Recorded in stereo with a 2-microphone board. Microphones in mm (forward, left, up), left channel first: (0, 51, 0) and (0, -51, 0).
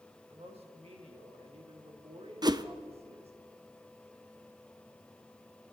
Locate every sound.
0.3 s a woman speaking: 85° right, 3 m
2.4 s a whoosh: 45° right (ahead or behind), 0.6 m